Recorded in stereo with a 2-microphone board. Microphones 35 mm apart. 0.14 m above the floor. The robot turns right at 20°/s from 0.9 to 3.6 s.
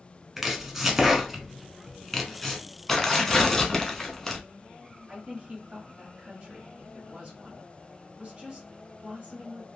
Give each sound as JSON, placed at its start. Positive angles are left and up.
{"t": 0.4, "sound": "chopping", "side_deg": -10, "distance_m": 0.7}
{"t": 2.9, "sound": "tearing paper", "side_deg": 10, "distance_m": 0.7}
{"t": 5.1, "sound": "a woman speaking", "side_deg": -30, "distance_m": 1.7}